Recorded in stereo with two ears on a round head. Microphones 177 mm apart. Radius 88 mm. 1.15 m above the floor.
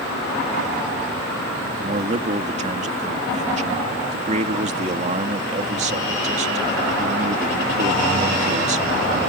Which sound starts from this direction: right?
A man speaking, at 1.8 s.